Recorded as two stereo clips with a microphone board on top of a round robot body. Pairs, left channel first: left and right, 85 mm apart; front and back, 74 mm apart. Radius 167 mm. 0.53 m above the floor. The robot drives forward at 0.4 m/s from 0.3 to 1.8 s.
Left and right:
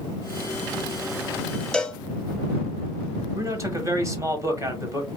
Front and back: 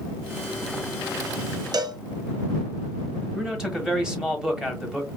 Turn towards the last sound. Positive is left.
turn(degrees=-105)